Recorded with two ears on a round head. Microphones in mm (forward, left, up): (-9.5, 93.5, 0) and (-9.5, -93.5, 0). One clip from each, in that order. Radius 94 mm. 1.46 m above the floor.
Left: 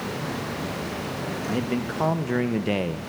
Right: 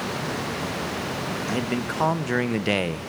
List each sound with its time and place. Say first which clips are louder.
1.5 s a man speaking: even; 25° right (ahead or behind), 1.6 m; by 3.1 s 45° right (ahead or behind), 0.5 m